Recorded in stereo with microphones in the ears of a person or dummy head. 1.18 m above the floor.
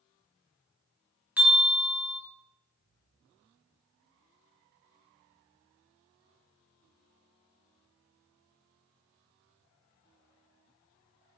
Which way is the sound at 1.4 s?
10° right (ahead or behind).